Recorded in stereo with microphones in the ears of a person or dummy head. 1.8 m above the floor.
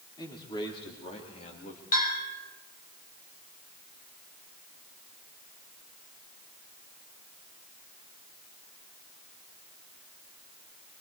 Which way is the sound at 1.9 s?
55° left (ahead or behind).